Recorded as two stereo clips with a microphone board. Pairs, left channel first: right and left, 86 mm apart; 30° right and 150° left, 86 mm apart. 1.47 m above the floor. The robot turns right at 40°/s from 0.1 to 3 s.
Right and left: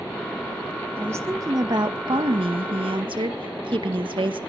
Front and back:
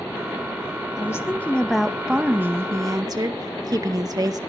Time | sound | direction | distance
1.0 | a woman speaking | 25° left | 1.6 m